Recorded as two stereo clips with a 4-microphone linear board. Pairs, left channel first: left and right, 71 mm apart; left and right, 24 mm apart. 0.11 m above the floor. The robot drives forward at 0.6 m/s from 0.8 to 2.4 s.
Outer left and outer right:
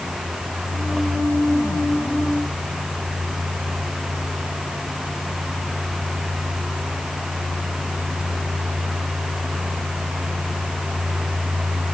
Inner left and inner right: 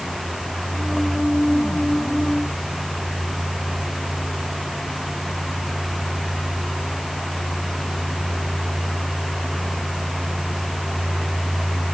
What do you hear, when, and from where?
Only background noise.